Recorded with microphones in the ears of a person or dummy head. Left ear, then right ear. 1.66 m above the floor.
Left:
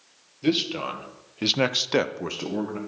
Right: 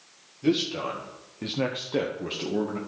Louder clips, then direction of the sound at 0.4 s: Left 1 dB; 35° left (ahead or behind).